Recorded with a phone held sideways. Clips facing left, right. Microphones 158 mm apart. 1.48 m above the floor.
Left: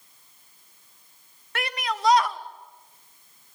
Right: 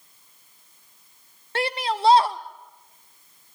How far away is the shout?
About 1.0 m.